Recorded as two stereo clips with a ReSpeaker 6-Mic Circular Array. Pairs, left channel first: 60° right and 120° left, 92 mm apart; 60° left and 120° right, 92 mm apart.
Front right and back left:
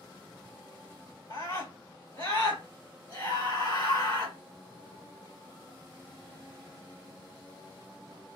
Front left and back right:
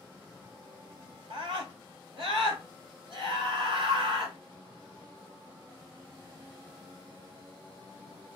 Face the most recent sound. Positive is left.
turn(degrees=-100)